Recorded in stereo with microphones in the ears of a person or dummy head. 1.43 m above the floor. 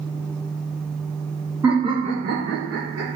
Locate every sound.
1.6 s laughter: 15° right (ahead or behind), 1.1 m; by 3.1 s 90° right, 1.5 m